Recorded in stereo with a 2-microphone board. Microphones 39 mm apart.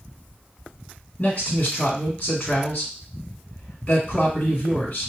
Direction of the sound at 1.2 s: 45° left (ahead or behind).